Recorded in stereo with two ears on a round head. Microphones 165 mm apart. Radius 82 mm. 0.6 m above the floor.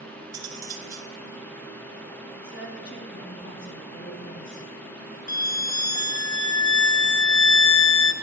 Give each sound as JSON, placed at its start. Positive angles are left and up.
{"t": 0.3, "sound": "cutlery clinking", "side_deg": -20, "distance_m": 3.5}
{"t": 2.4, "sound": "a woman speaking", "side_deg": 60, "distance_m": 4.5}
{"t": 5.3, "sound": "a violin", "side_deg": 20, "distance_m": 0.8}